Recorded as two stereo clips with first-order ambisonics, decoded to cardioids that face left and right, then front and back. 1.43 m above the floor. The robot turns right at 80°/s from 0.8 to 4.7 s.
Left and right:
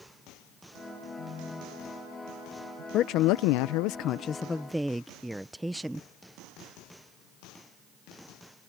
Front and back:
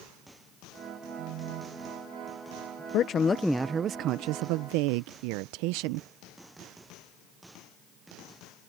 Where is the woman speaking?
40° left; by 6.1 s straight behind.